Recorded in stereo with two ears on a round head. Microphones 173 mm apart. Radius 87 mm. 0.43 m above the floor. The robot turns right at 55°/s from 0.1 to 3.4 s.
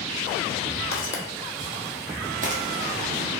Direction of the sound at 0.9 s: 55° left (ahead or behind).